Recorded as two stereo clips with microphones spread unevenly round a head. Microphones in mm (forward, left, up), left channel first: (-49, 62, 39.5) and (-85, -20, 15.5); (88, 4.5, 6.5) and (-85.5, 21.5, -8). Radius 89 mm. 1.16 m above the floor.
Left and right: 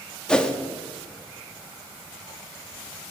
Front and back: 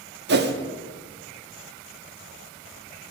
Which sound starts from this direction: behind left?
A whoosh, at 0.3 s.